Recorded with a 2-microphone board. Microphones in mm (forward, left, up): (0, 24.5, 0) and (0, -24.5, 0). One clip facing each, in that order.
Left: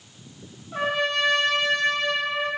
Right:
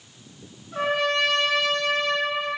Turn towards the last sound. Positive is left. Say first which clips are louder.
# right 1 dB
turn(degrees=15)  # may be behind; listen again after turning